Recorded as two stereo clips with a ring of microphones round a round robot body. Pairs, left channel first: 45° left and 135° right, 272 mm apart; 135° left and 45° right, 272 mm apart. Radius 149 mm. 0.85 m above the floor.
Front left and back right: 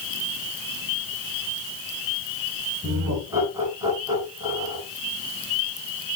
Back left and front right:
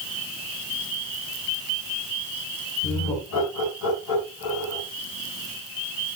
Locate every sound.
2.8 s laughter: 145° left, 9 m